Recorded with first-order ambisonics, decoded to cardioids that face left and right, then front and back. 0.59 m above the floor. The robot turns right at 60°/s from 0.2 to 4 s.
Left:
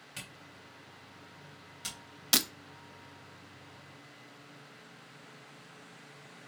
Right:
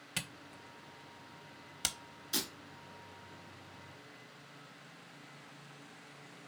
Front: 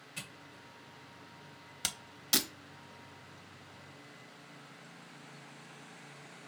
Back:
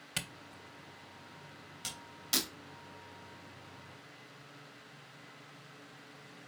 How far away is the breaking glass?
About 0.8 m.